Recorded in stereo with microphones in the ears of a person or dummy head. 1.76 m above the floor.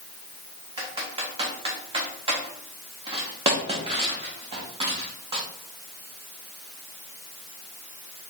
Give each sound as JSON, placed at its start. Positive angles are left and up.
{"t": 0.8, "sound": "typing on a keyboard", "side_deg": -30, "distance_m": 0.9}